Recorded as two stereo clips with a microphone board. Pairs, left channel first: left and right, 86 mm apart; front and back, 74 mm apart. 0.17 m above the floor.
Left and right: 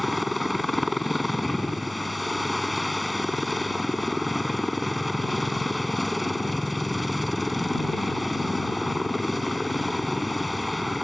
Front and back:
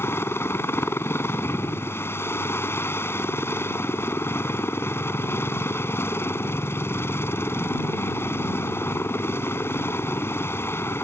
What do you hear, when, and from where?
0.0 s a helicopter: straight ahead